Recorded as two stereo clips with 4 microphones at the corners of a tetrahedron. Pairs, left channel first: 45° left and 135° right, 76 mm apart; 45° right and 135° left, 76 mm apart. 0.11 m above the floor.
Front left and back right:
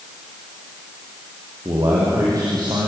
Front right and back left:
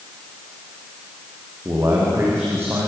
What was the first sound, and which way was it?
A man speaking, 175° right.